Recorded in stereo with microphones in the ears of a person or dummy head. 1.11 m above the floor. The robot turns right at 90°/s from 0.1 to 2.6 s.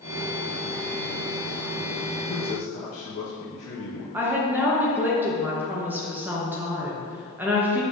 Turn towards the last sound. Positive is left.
turn(degrees=0)  # may be behind; listen again after turning